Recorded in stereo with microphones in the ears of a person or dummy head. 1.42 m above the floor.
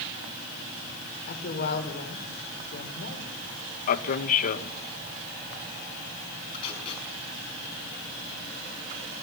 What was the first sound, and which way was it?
A woman speaking, 55° left (ahead or behind).